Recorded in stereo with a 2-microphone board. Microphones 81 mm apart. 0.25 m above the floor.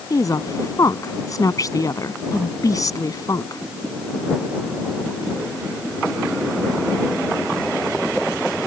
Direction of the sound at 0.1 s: 45° left (ahead or behind).